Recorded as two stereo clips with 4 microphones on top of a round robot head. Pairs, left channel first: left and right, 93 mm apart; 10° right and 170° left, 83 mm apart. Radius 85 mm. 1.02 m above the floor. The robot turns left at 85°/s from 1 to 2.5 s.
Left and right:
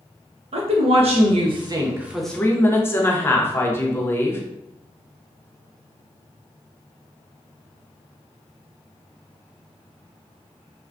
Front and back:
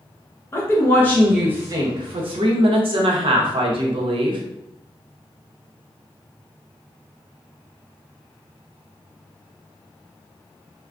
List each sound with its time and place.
0.5 s a woman speaking: 75° right, 0.8 m; by 4.4 s 155° left, 0.8 m